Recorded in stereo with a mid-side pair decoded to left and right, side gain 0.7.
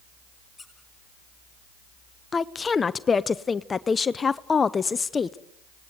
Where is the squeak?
15° left, 6.5 m.